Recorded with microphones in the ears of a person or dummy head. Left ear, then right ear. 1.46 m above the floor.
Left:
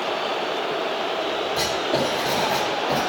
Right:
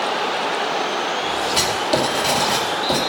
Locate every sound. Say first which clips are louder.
1.6 s writing: right 4 dB; 50° right (ahead or behind), 3 m